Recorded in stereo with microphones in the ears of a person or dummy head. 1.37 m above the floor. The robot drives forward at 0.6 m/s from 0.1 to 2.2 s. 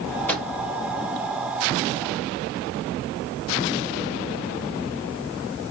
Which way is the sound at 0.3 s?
10° left (ahead or behind).